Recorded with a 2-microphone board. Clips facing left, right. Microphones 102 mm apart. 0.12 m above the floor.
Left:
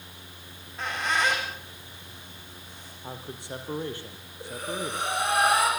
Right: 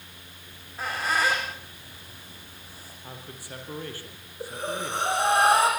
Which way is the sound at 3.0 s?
25° left (ahead or behind).